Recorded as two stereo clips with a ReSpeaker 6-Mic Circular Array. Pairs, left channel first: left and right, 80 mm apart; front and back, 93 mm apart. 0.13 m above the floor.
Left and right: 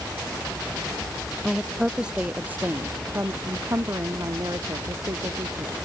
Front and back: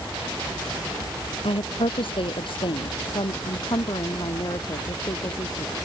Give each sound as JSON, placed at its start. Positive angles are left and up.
{"t": 1.4, "sound": "a woman speaking", "azimuth_deg": 0}